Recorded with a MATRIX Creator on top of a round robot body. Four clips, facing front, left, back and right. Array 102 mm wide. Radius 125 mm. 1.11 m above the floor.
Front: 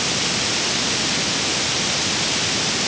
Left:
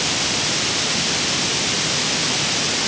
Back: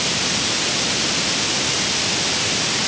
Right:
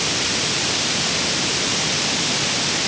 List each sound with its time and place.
Only background noise.